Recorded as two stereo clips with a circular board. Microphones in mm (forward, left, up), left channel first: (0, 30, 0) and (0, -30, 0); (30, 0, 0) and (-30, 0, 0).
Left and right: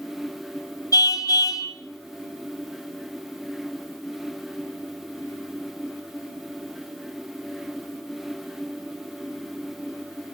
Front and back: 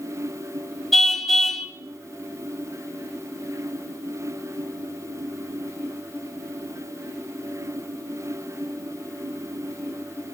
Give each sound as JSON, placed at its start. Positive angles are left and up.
{"t": 0.9, "sound": "a car horn", "azimuth_deg": 85, "distance_m": 2.0}